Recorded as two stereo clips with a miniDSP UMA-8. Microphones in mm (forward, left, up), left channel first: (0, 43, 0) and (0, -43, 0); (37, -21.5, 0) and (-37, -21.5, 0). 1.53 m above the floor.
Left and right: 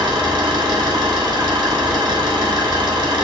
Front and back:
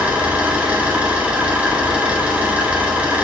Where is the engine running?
110° right, 1.9 m.